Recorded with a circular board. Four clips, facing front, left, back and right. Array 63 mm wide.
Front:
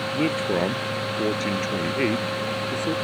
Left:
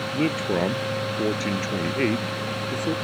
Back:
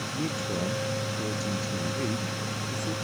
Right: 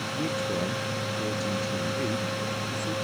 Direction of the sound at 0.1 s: 45° left.